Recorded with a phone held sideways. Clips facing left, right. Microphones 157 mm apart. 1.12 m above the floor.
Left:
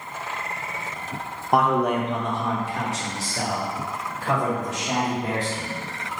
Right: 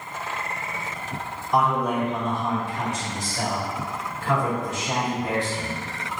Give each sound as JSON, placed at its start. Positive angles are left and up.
{"t": 1.5, "sound": "a man speaking", "side_deg": 55, "distance_m": 0.7}